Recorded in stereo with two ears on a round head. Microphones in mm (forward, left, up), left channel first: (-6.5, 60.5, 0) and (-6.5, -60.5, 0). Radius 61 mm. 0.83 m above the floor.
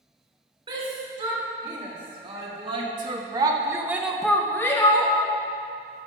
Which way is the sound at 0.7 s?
40° right (ahead or behind).